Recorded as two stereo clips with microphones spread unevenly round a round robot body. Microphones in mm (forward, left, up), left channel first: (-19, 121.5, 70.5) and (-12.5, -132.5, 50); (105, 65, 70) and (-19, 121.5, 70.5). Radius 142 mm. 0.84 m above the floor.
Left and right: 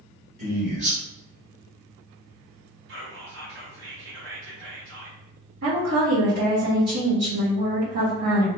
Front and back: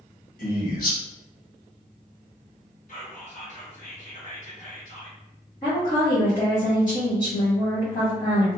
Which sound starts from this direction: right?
A woman speaking, at 5.6 s.